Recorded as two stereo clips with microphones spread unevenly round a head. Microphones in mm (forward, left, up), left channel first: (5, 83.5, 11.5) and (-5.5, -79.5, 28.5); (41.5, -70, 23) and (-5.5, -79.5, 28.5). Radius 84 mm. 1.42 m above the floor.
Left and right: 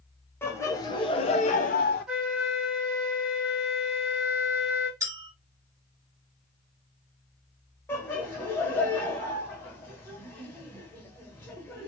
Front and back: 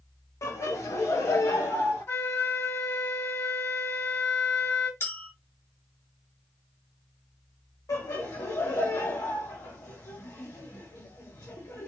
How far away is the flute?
About 1.7 m.